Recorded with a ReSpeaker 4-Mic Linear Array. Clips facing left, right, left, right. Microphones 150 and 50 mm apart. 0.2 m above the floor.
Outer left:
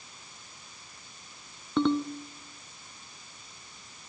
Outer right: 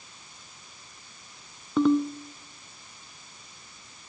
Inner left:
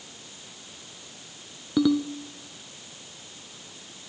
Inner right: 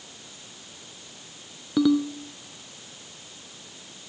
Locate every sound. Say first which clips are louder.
1.8 s a ringtone: outer right 4 dB, inner right 1 dB; 5° right (ahead or behind), 0.8 m